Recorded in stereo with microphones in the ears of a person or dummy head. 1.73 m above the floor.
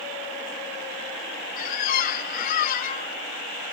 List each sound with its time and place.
1.6 s a squeak: 50° left (ahead or behind), 1.5 m